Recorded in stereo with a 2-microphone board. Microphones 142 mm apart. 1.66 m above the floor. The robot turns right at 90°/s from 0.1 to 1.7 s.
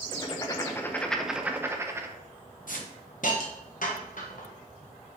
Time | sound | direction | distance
0.1 | writing | 25° left (ahead or behind) | 0.7 m
2.7 | a hiss | 70° left (ahead or behind) | 1.1 m